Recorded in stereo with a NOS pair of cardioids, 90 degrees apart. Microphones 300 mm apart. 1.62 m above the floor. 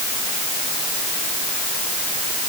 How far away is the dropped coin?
No dropped coin in this recording.